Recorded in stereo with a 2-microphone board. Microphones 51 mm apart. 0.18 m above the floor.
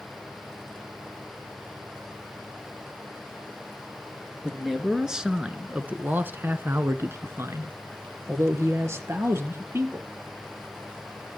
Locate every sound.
4.4 s a man speaking: 5° right (ahead or behind), 3 m; by 10.1 s 55° right (ahead or behind), 4.5 m